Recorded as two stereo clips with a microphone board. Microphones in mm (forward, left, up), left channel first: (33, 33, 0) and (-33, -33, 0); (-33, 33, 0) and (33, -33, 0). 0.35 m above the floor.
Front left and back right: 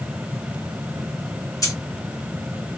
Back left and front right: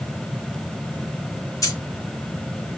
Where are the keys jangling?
90° left, 0.9 m.